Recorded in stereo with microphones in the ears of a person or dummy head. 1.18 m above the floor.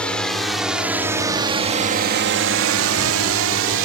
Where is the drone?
10° left (ahead or behind); by 3.9 s 70° right (ahead or behind).